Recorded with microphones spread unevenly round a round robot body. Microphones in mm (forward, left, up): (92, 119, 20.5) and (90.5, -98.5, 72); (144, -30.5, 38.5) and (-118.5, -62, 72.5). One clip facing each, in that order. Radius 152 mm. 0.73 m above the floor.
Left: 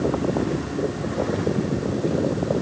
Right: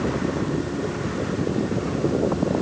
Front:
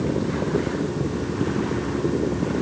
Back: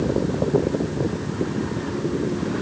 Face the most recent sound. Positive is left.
No sound to turn to.